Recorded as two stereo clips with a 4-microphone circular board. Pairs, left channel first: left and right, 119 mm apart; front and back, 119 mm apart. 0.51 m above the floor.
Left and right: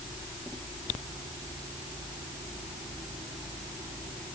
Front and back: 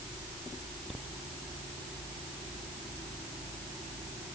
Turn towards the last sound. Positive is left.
No sound to turn to.